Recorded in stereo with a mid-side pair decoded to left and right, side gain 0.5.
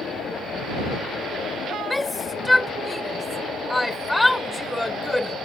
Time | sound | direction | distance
1.9 | a shout | 15° left | ?